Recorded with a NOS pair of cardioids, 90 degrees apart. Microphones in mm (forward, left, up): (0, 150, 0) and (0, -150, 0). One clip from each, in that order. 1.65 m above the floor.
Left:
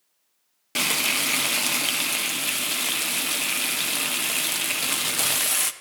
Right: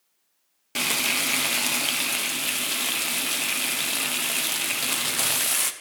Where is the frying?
10° left, 0.5 m.